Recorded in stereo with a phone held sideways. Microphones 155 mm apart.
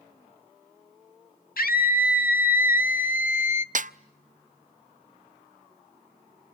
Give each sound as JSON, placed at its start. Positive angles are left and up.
{"t": 1.6, "sound": "a scream", "side_deg": 70, "distance_m": 2.0}
{"t": 3.8, "sound": "a snare drum", "side_deg": -55, "distance_m": 0.5}